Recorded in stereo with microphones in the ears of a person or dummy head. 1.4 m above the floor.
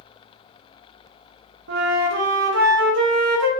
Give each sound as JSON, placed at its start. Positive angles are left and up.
{"t": 1.7, "sound": "a flute", "side_deg": -70, "distance_m": 0.7}